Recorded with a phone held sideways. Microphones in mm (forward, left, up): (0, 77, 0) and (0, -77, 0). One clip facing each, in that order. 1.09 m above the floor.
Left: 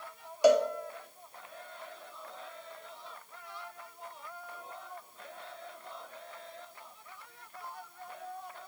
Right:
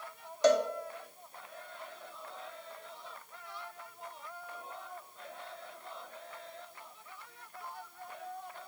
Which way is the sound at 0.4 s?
10° left (ahead or behind).